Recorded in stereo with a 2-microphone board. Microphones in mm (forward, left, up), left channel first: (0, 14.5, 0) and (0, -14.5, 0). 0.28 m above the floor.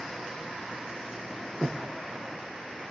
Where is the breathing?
40° right (ahead or behind), 2.5 m.